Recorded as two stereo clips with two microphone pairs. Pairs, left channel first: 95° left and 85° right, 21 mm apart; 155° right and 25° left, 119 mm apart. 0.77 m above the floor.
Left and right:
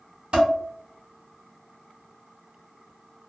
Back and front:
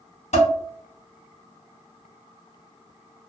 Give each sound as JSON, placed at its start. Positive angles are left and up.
{"t": 0.3, "sound": "dishes clattering", "azimuth_deg": -130, "distance_m": 1.3}